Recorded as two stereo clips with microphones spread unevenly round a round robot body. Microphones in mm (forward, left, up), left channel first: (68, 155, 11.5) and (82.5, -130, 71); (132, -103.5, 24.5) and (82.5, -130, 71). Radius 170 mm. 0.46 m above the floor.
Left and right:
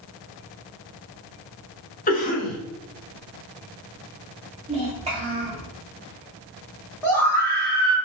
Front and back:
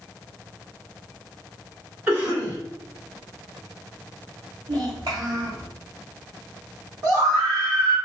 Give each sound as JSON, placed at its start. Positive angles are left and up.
{"t": 2.1, "sound": "a cough", "azimuth_deg": 100, "distance_m": 1.2}
{"t": 4.7, "sound": "a child speaking", "azimuth_deg": -160, "distance_m": 1.4}
{"t": 7.0, "sound": "a scream", "azimuth_deg": 150, "distance_m": 1.0}